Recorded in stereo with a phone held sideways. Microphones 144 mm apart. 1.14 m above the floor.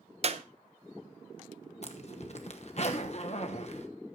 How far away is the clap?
About 0.7 m.